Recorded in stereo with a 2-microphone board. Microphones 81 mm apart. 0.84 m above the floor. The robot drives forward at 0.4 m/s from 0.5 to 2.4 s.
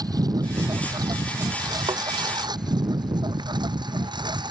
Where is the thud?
75° right (ahead or behind).